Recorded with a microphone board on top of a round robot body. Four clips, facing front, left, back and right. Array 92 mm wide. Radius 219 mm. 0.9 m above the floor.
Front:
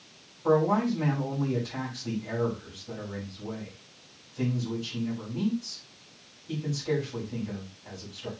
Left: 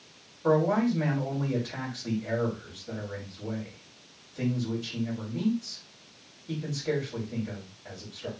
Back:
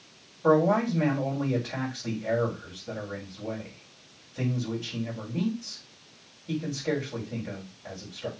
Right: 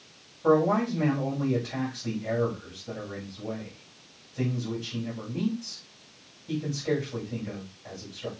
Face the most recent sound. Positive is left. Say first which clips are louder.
# right 1 dB, back 2 dB
turn(degrees=-155)